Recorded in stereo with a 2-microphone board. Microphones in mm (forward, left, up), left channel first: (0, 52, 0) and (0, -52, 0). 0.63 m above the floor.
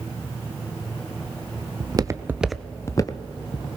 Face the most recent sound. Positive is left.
turn(degrees=55)  # may be behind; listen again after turning